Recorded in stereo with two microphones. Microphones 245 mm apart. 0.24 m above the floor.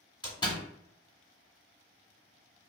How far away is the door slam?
About 1.0 m.